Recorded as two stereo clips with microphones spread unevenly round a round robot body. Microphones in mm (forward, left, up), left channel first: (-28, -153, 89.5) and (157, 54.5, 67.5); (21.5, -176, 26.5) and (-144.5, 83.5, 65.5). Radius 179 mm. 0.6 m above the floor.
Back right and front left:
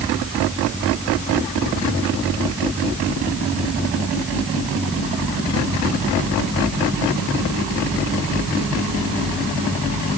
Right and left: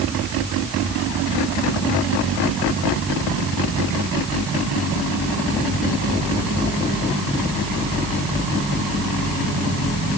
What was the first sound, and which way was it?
Only background noise.